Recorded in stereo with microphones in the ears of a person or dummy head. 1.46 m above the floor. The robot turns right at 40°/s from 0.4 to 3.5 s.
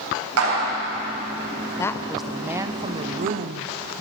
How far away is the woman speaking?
About 0.7 m.